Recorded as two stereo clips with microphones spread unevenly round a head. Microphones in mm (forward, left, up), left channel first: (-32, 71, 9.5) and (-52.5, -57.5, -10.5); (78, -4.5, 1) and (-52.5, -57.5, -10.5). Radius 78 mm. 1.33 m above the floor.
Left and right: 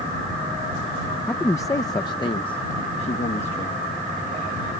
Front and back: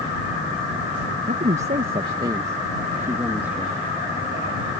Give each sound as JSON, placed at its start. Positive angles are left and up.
{"t": 1.3, "sound": "a man speaking", "azimuth_deg": 160}